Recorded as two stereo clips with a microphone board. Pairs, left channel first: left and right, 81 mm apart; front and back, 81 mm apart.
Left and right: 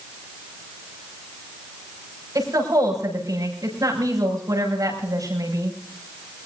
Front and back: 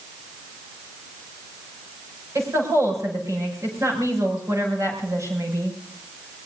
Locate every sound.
2.4 s a woman speaking: 130° right, 6.5 m